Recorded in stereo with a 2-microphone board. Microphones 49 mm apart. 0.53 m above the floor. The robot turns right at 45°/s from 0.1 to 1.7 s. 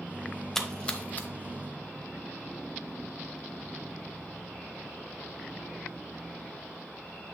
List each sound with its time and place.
0.6 s a splash: 5° left (ahead or behind), 0.8 m; by 1.3 s 40° left (ahead or behind), 0.8 m